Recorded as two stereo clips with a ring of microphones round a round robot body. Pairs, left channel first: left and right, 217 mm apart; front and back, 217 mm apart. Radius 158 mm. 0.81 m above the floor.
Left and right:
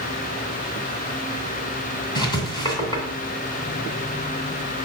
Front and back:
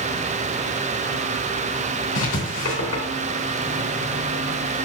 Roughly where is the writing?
Ahead.